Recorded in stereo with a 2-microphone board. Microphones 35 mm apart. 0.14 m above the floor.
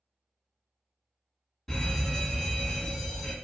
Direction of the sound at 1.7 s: 5° left (ahead or behind).